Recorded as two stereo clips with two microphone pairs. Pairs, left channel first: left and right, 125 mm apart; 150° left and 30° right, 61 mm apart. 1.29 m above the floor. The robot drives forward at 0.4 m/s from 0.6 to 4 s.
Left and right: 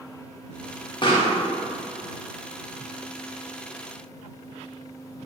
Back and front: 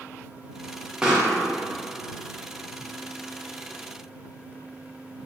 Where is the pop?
50° left, 0.8 m; by 1.3 s 60° left, 0.8 m.